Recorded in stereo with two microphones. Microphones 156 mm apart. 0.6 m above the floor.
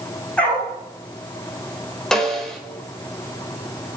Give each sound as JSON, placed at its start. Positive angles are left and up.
{"t": 0.4, "sound": "a dog barking", "side_deg": 10, "distance_m": 9.0}
{"t": 2.1, "sound": "a snare drum", "side_deg": 5, "distance_m": 3.0}